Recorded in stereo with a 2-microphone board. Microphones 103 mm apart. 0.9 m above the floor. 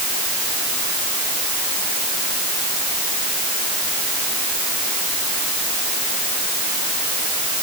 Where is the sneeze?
No sneeze in this recording.